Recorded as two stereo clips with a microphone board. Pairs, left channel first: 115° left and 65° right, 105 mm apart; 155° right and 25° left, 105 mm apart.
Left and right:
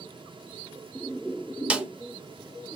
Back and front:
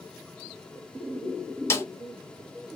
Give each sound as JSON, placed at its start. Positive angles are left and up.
{"t": 1.7, "sound": "a snare drum", "azimuth_deg": -135, "distance_m": 0.5}